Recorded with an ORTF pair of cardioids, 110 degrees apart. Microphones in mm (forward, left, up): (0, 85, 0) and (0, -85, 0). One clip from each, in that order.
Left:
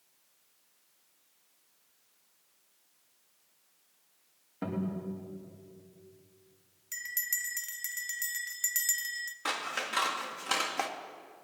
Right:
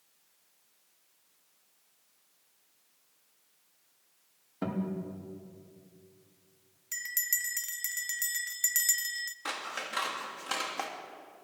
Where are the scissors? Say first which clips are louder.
Left 7 dB; 20° left, 2.5 m.